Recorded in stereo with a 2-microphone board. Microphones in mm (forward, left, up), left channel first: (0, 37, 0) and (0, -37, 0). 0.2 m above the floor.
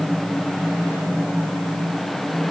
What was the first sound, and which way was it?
Only background noise.